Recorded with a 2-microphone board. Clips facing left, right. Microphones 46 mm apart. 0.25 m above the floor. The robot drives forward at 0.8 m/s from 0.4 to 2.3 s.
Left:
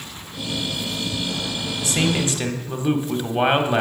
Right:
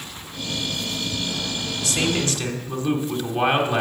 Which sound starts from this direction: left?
A man speaking, at 1.8 s.